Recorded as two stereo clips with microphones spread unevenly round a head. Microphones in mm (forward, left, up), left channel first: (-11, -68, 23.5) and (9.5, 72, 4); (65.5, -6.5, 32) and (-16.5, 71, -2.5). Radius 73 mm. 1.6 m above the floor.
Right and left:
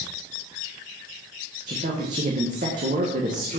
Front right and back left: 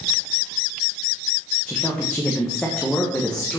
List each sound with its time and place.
1.7 s a woman speaking: 40° left, 1.6 m